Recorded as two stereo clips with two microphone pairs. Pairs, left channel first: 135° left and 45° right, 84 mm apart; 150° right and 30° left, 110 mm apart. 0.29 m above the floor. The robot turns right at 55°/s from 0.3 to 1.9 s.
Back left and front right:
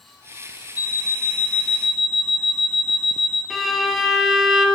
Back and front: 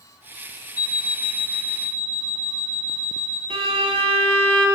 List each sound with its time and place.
0.8 s an alarm clock: 165° left, 1.1 m; by 3.4 s 135° right, 1.1 m
3.5 s a violin: 40° left, 1.1 m